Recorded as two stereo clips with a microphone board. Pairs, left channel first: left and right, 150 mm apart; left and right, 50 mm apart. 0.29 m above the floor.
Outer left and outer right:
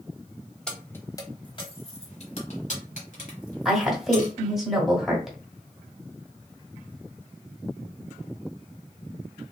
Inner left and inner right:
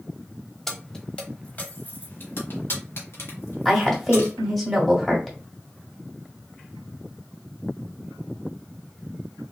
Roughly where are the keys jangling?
Centre.